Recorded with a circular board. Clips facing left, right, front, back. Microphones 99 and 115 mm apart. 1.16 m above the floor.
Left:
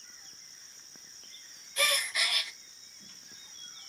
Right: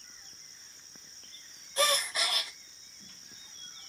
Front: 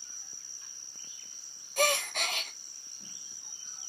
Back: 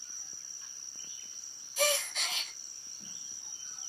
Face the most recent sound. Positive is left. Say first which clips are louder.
# right 3 dB, front 3 dB
turn(degrees=-30)